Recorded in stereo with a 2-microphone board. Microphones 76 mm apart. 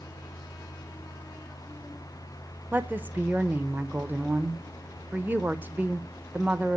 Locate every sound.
2.7 s a woman speaking: 25° right (ahead or behind), 0.8 m